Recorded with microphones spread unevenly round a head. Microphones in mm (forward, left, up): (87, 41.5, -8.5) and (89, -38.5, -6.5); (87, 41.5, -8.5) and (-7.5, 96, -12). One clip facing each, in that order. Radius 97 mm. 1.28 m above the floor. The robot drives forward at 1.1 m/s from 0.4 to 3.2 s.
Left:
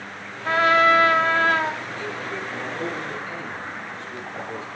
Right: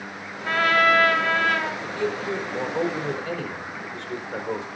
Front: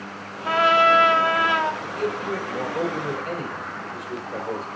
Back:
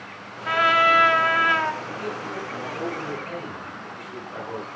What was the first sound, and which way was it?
A trumpet, 25° left.